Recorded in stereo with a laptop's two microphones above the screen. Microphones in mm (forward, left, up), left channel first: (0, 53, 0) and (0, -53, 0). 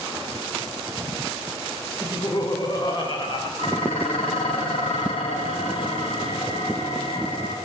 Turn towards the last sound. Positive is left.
turn(degrees=65)  # may be behind; listen again after turning